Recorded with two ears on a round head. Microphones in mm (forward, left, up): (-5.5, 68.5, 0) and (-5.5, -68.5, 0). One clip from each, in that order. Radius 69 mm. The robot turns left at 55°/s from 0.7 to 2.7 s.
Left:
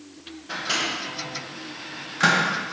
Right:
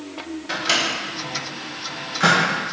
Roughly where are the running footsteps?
I don't hear running footsteps.